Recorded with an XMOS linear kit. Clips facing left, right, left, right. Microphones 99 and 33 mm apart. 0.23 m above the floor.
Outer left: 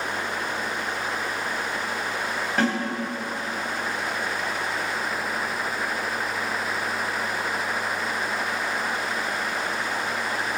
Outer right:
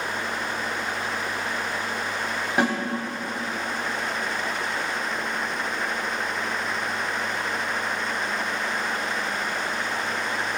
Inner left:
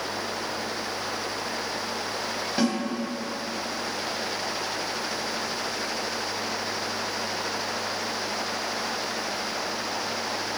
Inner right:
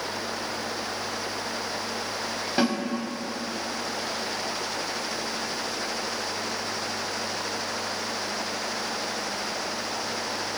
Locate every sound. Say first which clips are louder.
2.6 s a snare drum: outer right 1 dB, inner right 1 dB; 15° right (ahead or behind), 1.1 m